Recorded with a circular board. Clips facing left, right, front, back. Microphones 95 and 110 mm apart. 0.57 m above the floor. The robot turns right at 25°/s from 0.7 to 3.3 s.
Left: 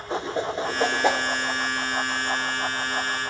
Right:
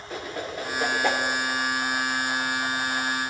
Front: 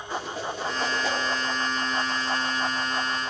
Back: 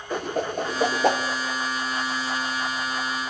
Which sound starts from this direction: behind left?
A whoosh, at 0.1 s.